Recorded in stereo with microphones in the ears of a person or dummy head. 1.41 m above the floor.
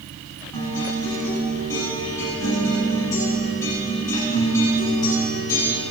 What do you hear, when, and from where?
0.5 s a guitar: 15° left (ahead or behind), 6.5 m